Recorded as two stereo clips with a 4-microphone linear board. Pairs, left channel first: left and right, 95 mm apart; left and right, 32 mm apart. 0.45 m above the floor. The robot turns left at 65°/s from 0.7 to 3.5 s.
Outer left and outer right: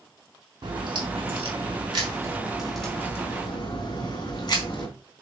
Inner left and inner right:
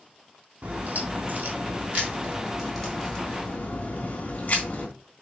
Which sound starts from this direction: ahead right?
A crack, at 0.6 s.